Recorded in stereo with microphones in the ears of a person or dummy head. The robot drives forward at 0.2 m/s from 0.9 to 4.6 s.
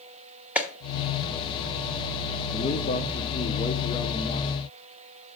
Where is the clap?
5° right (ahead or behind), 1.0 m.